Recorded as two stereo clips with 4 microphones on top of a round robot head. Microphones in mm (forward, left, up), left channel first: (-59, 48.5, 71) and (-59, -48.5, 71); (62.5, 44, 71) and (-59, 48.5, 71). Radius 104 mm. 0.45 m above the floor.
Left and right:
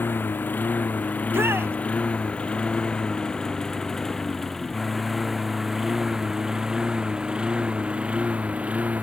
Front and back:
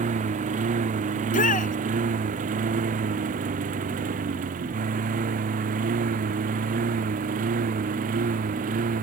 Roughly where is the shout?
Ahead.